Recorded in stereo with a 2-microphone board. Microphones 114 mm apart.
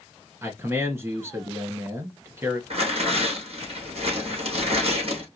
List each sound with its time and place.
0.4 s a man speaking: 20° right (ahead or behind), 1.7 m
2.7 s tearing paper: 60° right (ahead or behind), 3.5 m